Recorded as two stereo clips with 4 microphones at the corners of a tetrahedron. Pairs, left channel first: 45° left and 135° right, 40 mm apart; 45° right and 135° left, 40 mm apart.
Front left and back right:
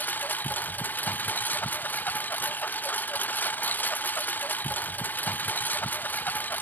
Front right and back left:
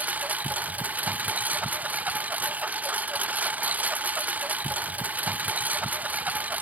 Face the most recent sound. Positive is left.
turn(degrees=85)